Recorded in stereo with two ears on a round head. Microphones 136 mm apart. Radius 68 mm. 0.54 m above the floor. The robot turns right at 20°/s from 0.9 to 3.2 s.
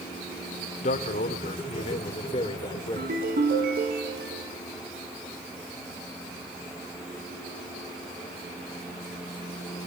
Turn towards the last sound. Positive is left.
turn(degrees=-70)  # may be behind; listen again after turning